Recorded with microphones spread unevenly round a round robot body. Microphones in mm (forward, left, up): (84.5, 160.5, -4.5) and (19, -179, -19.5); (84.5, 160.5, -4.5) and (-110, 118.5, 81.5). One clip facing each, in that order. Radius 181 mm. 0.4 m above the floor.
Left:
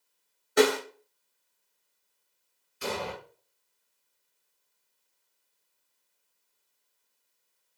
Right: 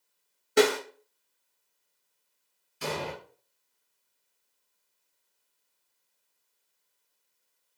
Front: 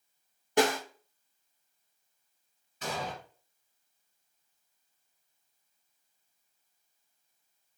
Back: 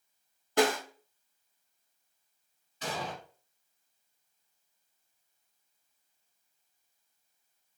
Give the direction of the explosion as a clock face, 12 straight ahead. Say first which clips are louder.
Even, front 1 dB; 2 o'clock.